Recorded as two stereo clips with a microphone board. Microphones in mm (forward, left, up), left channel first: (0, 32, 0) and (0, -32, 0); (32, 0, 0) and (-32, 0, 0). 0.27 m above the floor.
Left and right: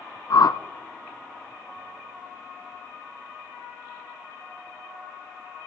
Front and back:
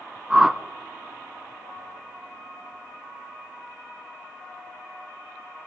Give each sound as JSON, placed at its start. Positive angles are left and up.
{"t": 0.3, "sound": "a whoosh", "azimuth_deg": 100, "distance_m": 0.7}